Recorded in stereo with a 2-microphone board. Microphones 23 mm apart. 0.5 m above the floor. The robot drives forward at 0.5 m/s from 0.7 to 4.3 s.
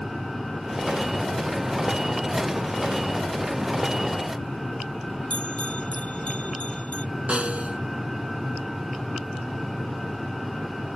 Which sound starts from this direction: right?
A snare drum, at 7.3 s.